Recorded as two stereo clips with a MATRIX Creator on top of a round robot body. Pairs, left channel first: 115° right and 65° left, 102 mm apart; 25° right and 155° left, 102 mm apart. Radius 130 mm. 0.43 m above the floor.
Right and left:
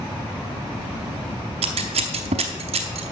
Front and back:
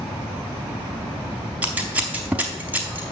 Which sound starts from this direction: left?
Scissors, at 1.6 s.